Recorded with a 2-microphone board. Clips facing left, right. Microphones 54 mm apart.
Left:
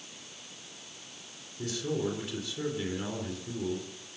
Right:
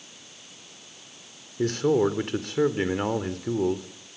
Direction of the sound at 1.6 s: 55° right (ahead or behind).